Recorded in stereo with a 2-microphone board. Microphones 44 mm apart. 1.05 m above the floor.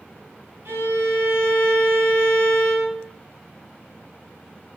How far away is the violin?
About 1.4 m.